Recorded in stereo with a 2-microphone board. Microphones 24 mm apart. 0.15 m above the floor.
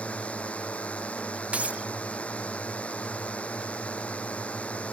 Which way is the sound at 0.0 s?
60° left (ahead or behind).